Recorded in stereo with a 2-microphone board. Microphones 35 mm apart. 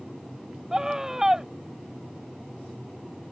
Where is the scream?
15° right (ahead or behind).